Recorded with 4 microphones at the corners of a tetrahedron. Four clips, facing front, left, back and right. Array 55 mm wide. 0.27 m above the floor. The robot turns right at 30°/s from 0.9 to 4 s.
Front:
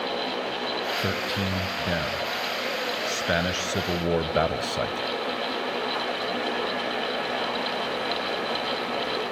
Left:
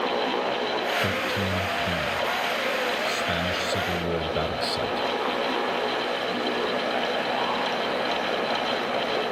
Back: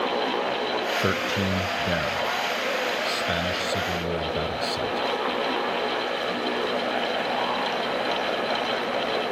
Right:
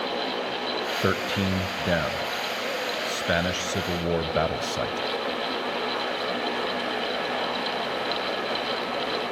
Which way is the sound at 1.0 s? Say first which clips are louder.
Even, back 3 dB; 125° right.